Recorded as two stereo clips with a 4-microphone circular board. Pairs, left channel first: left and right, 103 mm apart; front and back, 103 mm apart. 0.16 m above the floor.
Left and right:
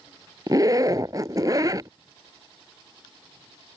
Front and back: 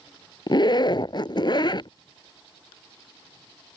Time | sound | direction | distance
0.5 | a zipper | 40° right | ?